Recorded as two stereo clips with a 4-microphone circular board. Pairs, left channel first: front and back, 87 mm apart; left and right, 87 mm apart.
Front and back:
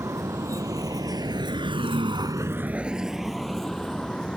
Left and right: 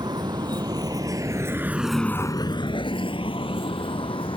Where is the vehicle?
125° right; by 4.4 s 80° left.